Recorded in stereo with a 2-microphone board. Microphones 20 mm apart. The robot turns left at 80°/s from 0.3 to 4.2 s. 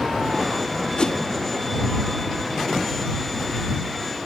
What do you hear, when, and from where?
1.0 s a whoosh: 50° left (ahead or behind); by 1.2 s 35° left (ahead or behind)